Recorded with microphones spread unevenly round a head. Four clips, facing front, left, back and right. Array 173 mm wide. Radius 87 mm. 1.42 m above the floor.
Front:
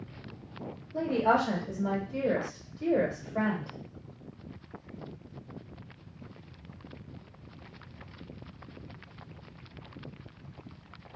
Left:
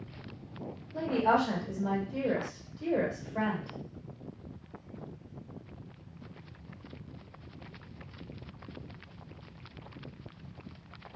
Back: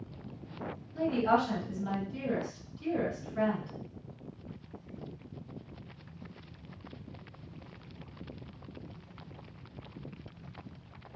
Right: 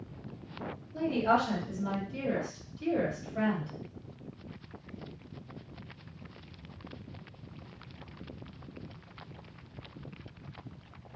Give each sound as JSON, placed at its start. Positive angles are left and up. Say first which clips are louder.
{"t": 0.9, "sound": "a woman speaking", "louder": "left 1 dB, front 2 dB", "azimuth_deg": 20, "distance_m": 1.7}